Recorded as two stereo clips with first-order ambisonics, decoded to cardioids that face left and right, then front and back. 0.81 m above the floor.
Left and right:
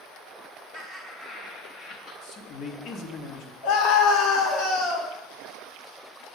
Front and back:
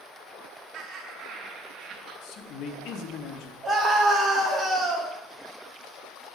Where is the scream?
100° left, 2 m.